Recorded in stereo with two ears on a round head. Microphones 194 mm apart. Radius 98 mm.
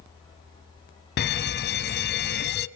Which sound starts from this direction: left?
A fire alarm, at 1.2 s.